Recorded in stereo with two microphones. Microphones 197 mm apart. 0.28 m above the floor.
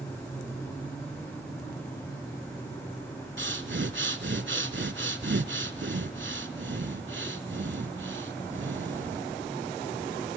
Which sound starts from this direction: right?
Breathing, at 3.4 s.